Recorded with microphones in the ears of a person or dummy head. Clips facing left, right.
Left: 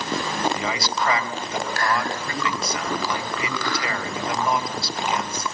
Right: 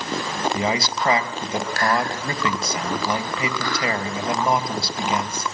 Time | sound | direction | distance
0.5 | a man speaking | 30° right (ahead or behind) | 2.5 m